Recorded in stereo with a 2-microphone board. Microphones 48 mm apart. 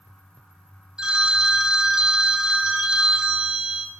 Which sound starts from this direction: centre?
A phone ringing, at 1.0 s.